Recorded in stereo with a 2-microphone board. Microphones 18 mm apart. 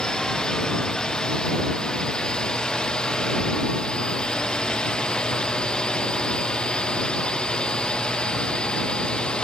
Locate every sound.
0.0 s a drone: 50° left (ahead or behind); by 9.4 s 70° left (ahead or behind)